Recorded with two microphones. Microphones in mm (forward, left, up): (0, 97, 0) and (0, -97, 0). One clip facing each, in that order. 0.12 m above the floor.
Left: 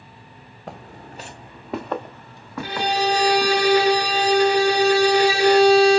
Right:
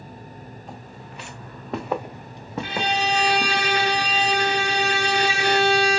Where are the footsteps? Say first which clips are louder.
Left 2 dB; 75° left (ahead or behind), 0.6 m; by 3.6 s 35° right (ahead or behind), 1.5 m.